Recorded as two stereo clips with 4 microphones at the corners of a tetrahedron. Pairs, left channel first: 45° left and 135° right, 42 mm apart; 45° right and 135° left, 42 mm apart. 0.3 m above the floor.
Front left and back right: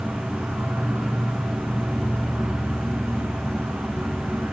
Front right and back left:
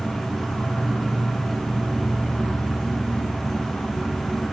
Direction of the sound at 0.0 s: 135° right.